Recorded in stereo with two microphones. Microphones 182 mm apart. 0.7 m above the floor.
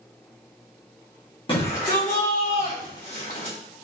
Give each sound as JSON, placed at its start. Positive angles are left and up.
{"t": 1.5, "sound": "a shout", "side_deg": 25, "distance_m": 0.8}